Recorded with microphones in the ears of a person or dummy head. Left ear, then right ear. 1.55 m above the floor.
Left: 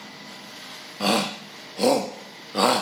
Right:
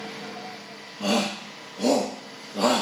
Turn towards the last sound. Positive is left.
turn(degrees=65)  # may be behind; listen again after turning